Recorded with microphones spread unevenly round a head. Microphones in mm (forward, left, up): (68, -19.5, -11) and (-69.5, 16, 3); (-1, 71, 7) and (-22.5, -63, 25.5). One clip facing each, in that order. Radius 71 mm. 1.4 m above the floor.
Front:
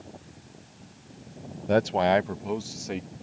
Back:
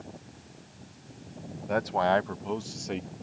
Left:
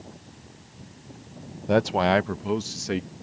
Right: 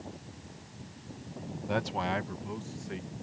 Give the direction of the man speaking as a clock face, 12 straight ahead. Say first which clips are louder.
Front 4 dB, left 11 dB; 11 o'clock.